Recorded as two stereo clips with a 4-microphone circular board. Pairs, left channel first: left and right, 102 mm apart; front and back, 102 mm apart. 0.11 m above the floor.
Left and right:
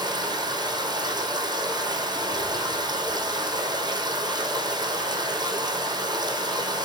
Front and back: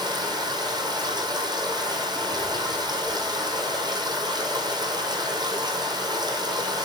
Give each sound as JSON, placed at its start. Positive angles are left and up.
{"t": 0.0, "sound": "running water", "azimuth_deg": -135, "distance_m": 2.0}